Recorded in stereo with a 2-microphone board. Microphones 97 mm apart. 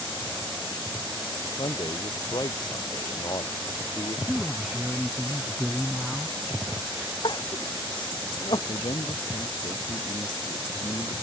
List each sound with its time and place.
1.4 s a man speaking: 50° left (ahead or behind)
4.3 s a man speaking: 5° right (ahead or behind)
7.2 s crying: 55° left (ahead or behind)
8.7 s a man speaking: 70° left (ahead or behind)